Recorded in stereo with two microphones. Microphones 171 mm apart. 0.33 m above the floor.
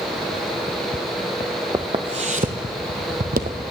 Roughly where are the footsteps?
Right.